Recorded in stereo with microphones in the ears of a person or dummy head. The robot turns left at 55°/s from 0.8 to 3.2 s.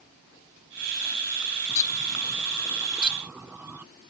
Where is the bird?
20° left (ahead or behind); by 3.9 s 5° right (ahead or behind).